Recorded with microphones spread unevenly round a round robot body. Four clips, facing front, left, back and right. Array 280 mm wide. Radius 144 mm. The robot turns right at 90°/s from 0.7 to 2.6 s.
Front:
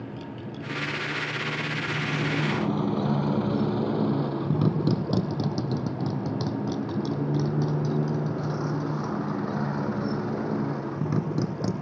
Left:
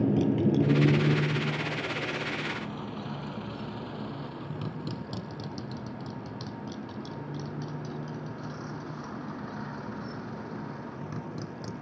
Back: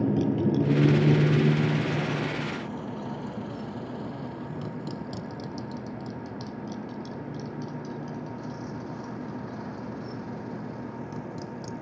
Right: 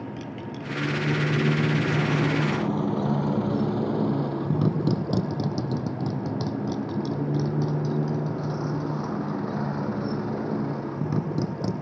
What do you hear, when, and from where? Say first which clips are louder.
0.0 s a motorcycle: left 10 dB, back 13 dB; 135° left; by 11.8 s 45° right